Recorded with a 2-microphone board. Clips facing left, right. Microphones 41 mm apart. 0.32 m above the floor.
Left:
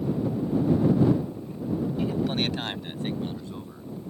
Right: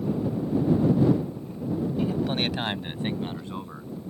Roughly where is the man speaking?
Centre.